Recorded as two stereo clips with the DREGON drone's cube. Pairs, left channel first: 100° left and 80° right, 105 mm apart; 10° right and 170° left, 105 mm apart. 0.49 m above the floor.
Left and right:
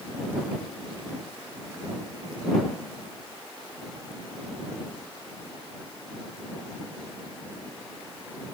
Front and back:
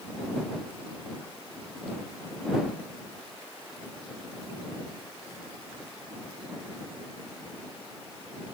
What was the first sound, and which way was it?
Only background noise.